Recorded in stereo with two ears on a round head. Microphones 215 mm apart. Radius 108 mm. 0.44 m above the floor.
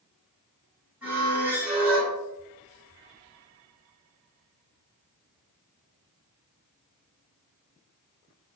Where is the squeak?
5° right (ahead or behind), 1.7 m.